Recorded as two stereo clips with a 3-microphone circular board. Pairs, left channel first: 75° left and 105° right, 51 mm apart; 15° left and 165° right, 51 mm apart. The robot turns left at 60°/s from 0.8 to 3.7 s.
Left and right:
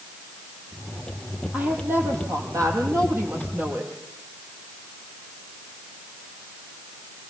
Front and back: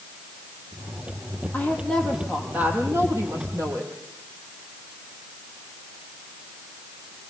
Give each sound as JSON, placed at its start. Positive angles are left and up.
{"t": 1.5, "sound": "a woman speaking", "azimuth_deg": -40, "distance_m": 8.0}